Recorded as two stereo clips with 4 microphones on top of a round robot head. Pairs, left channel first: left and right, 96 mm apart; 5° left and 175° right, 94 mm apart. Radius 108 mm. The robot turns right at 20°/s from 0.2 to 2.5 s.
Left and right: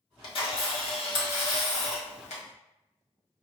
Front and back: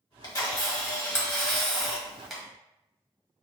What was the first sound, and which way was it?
A camera shutter, 55° left.